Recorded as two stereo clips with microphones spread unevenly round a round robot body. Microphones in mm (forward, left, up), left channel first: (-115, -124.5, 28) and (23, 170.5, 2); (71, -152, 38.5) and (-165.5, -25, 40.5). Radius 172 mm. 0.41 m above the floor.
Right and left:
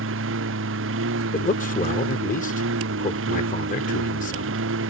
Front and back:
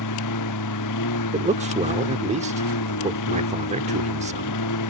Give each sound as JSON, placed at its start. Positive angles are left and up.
{"t": 0.0, "sound": "a lawn mower", "azimuth_deg": 10}
{"t": 1.3, "sound": "a man speaking", "azimuth_deg": -165}